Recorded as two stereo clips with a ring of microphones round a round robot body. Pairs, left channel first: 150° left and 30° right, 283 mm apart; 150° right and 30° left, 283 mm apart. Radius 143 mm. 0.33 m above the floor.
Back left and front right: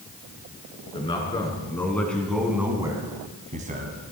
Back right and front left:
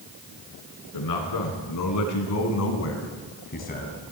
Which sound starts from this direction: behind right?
A man speaking, at 0.9 s.